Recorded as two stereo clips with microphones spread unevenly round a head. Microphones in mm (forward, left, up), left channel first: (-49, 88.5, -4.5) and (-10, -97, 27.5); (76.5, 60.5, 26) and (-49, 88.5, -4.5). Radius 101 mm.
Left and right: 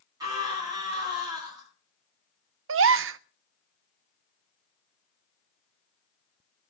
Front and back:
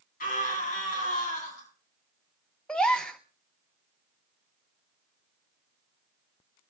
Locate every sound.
0.2 s a scream: 5° right, 9.5 m
2.7 s a gasp: 100° right, 0.5 m